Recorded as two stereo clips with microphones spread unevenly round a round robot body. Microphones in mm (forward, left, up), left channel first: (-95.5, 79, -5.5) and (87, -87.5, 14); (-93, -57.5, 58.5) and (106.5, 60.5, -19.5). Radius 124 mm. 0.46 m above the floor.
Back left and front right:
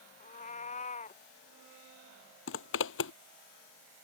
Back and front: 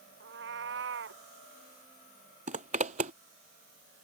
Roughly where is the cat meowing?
Left.